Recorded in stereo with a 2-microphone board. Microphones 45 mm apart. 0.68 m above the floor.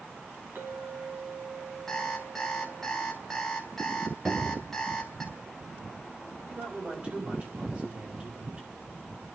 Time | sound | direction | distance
0.6 | a clink | 50° right (ahead or behind) | 4.5 m
1.9 | an alarm clock | 10° left (ahead or behind) | 2 m
4.2 | a cupboard door | 40° right (ahead or behind) | 7 m
6.4 | a man speaking | 35° right (ahead or behind) | 5 m